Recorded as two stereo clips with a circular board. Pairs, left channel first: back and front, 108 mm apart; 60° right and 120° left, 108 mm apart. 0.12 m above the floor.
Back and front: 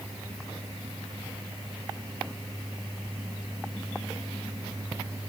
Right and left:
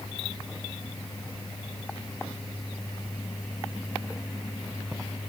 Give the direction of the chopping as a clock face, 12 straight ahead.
No chopping in this recording.